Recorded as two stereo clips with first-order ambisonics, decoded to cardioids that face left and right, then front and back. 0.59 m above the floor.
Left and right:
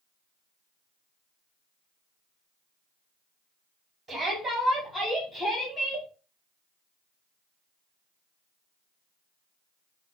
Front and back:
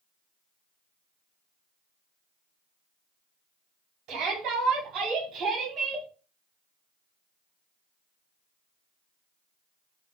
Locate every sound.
4.1 s a shout: 160° right, 2 m; by 6.1 s 130° left, 1.3 m